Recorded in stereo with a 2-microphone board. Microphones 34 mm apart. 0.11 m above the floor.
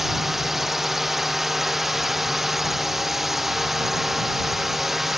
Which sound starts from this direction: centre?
A drone, at 0.0 s.